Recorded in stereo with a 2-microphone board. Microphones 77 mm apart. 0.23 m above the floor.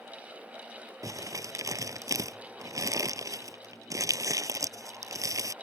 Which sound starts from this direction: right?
Crumpling, at 1.0 s.